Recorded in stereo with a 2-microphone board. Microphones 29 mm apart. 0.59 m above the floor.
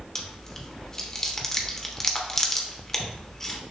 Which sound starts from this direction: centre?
Chewing, at 0.1 s.